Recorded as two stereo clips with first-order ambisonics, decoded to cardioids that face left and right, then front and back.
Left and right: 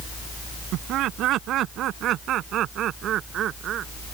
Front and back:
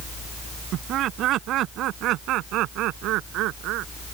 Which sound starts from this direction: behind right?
Laughter, at 0.7 s.